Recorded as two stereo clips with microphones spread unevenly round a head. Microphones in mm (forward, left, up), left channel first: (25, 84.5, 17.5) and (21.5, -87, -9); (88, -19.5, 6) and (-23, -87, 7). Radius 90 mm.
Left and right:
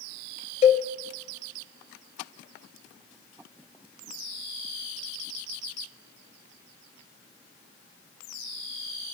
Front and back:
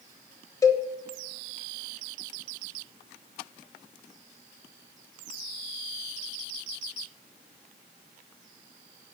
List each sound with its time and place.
0.6 s a cowbell: 65° left, 0.9 m